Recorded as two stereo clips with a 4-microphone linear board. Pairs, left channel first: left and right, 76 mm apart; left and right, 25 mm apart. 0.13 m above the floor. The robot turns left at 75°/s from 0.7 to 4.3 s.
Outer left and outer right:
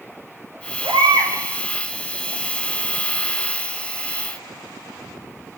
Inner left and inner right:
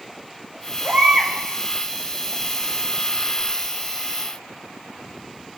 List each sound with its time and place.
0.8 s a baby crying: 100° right, 4.5 m; by 1.3 s 135° right, 4.5 m